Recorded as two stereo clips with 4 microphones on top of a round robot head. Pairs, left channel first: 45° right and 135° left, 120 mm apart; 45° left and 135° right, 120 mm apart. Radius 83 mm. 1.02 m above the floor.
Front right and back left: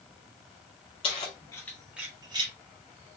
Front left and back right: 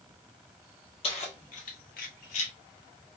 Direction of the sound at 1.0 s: Straight ahead.